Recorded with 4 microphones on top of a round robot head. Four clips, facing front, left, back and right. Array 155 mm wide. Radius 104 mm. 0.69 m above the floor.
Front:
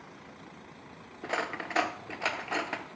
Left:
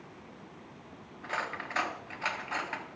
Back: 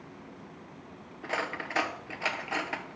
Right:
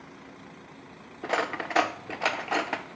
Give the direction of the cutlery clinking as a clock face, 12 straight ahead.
3 o'clock.